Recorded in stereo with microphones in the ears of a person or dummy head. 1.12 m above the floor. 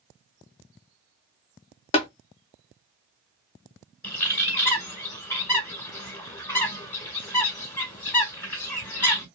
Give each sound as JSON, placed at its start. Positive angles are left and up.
{"t": 1.9, "sound": "tapping", "side_deg": 30, "distance_m": 0.7}
{"t": 4.0, "sound": "a bird", "side_deg": 15, "distance_m": 1.3}